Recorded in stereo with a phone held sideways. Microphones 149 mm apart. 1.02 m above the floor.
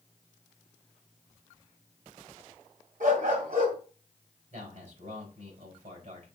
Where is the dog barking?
65° right (ahead or behind), 2.0 m.